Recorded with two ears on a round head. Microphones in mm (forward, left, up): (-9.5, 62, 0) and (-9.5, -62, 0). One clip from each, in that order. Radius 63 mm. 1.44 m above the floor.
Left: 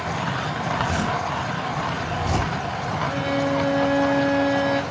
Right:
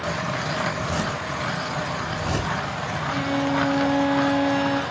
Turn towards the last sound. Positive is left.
turn(degrees=-30)  # may be behind; listen again after turning